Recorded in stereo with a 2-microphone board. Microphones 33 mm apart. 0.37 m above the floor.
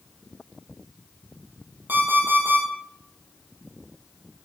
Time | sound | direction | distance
1.9 | an alarm clock | 85° right | 7 m